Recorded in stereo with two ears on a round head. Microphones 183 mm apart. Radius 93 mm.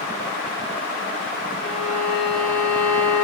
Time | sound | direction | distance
1.6 | a violin | centre (ahead or behind) | 3 m